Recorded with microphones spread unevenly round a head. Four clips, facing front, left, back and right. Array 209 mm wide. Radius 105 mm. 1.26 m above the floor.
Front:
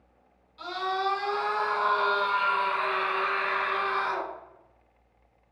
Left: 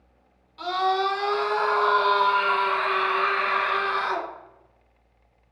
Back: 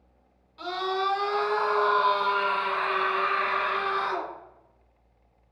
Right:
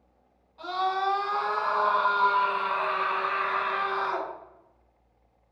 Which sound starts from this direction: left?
A scream, at 0.6 s.